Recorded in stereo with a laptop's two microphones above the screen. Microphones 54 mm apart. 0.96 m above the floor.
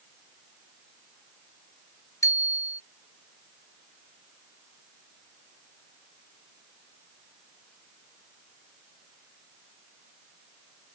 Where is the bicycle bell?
75° left (ahead or behind).